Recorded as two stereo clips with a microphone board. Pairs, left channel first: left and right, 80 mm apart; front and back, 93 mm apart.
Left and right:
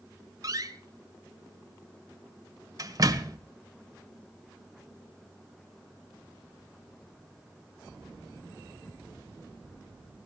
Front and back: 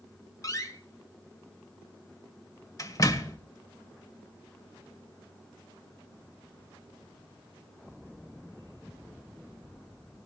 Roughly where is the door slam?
Ahead right.